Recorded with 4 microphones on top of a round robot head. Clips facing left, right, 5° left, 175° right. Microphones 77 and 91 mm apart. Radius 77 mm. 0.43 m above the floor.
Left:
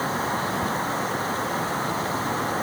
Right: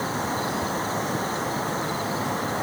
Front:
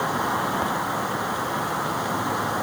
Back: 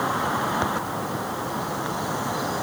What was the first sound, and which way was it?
Only background noise.